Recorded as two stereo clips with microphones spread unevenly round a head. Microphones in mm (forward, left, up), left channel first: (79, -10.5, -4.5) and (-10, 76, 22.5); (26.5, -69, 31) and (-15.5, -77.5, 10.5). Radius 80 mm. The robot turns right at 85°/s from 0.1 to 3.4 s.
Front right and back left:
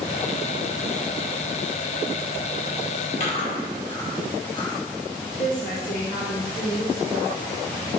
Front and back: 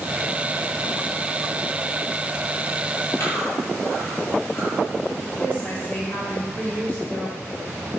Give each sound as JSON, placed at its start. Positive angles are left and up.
{"t": 3.2, "sound": "chewing", "azimuth_deg": -15, "distance_m": 2.5}
{"t": 5.4, "sound": "a woman speaking", "azimuth_deg": -40, "distance_m": 3.5}